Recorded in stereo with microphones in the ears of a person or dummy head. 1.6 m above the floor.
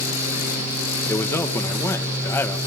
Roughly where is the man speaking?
Centre.